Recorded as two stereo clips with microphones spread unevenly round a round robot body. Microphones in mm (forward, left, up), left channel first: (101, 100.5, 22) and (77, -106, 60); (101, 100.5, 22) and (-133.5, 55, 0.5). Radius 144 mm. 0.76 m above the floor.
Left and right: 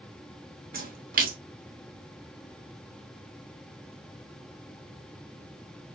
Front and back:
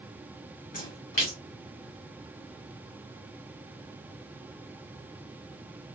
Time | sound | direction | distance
0.7 | a splash | 50° right | 1.4 m